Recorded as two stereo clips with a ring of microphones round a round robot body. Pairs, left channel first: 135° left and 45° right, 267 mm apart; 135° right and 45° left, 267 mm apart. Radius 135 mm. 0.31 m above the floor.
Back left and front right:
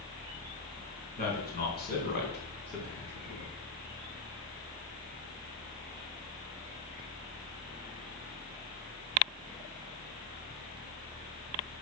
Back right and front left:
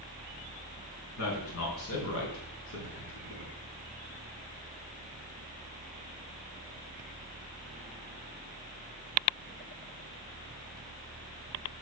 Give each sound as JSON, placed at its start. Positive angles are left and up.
{"t": 1.2, "sound": "a man speaking", "azimuth_deg": -170, "distance_m": 4.0}